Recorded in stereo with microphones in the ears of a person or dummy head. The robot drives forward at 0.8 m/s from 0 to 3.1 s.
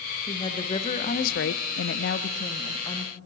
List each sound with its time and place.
0.3 s a woman speaking: 20° left (ahead or behind), 1.3 m